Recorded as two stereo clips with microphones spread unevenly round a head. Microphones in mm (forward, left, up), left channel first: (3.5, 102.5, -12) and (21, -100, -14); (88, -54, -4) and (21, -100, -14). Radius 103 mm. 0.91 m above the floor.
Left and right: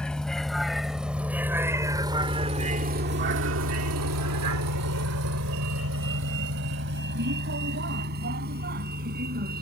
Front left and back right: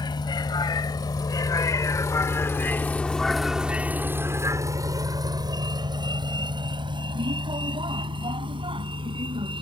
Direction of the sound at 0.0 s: 10° left.